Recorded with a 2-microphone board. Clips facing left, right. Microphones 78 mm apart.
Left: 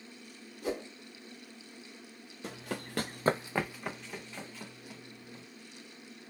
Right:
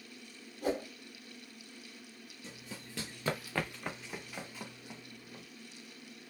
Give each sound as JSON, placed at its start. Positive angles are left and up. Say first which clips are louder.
{"t": 0.6, "sound": "a whoosh", "louder": "right 2 dB", "side_deg": -50, "distance_m": 3.0}
{"t": 2.4, "sound": "running footsteps", "louder": "left 10 dB", "side_deg": 85, "distance_m": 0.6}